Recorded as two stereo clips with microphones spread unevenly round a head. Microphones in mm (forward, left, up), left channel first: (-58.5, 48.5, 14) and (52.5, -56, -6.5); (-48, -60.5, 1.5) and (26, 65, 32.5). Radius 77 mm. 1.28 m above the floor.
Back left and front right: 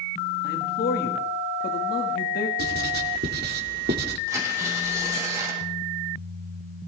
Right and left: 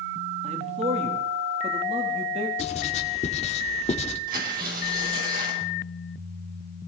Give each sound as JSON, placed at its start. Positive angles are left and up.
{"t": 0.4, "sound": "a man speaking", "azimuth_deg": 105, "distance_m": 1.8}
{"t": 2.6, "sound": "writing", "azimuth_deg": -70, "distance_m": 2.0}
{"t": 4.3, "sound": "tearing paper", "azimuth_deg": 30, "distance_m": 6.5}